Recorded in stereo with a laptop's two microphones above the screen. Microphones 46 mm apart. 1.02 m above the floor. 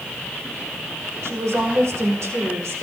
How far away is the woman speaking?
About 4.5 m.